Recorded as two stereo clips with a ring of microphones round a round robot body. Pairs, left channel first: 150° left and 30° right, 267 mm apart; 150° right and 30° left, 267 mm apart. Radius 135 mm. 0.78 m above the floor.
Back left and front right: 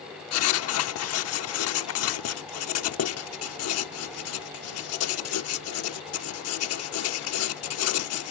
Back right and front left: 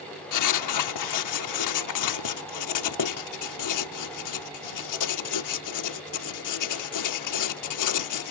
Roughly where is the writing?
Behind.